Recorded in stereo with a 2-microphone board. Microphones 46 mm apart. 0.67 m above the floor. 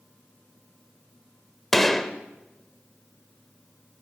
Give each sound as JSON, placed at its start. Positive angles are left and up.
{"t": 1.7, "sound": "a gunshot", "side_deg": 5, "distance_m": 1.1}